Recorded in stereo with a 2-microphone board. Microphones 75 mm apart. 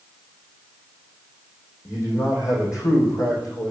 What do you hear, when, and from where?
1.9 s a man speaking: 45° left (ahead or behind), 5 m